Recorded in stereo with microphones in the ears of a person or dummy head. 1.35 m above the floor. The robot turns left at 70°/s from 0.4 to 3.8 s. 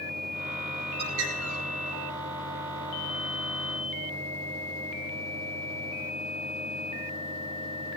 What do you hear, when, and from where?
1.0 s a bird: 55° right, 9.5 m; by 1.6 s 100° right, 9.5 m